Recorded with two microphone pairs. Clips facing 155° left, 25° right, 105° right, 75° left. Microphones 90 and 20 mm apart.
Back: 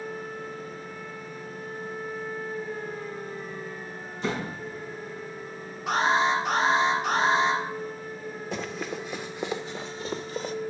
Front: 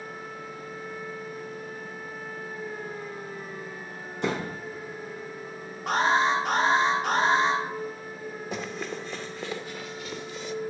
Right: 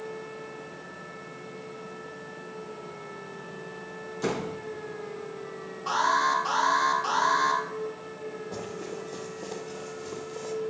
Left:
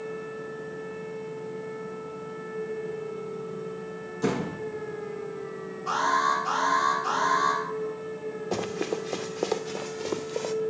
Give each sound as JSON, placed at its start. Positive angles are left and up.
{"t": 4.2, "sound": "a door slam", "azimuth_deg": -35, "distance_m": 3.5}
{"t": 5.9, "sound": "an alarm", "azimuth_deg": -60, "distance_m": 6.5}
{"t": 8.5, "sound": "running footsteps", "azimuth_deg": 60, "distance_m": 1.2}